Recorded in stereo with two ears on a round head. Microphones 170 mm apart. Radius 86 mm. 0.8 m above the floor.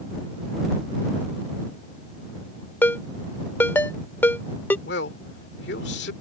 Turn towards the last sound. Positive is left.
turn(degrees=60)  # may be behind; listen again after turning